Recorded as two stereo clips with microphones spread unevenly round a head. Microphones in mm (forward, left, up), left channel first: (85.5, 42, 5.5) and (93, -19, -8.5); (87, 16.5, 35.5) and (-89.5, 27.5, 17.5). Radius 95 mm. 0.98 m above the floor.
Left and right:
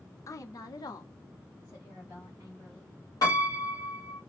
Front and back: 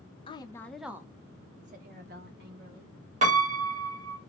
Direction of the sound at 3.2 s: 140° left.